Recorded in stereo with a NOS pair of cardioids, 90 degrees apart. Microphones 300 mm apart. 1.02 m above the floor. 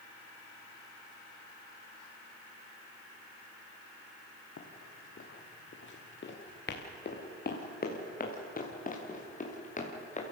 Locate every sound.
4.6 s running footsteps: 50° left, 4 m; by 10.3 s 25° left, 7 m